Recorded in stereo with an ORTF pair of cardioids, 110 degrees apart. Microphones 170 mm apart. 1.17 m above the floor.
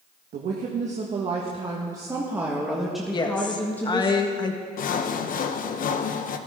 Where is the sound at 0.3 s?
55° right, 1.6 m; by 4.1 s 15° left, 2 m.